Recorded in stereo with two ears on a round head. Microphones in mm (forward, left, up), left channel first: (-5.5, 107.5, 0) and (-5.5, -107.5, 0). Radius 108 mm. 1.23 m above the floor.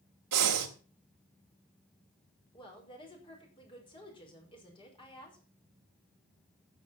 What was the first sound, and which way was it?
Breathing, 70° right (ahead or behind).